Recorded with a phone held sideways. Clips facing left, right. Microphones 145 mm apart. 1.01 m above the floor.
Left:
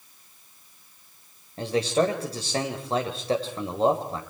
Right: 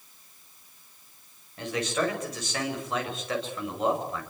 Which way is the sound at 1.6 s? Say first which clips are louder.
Left 5 dB; 35° left (ahead or behind).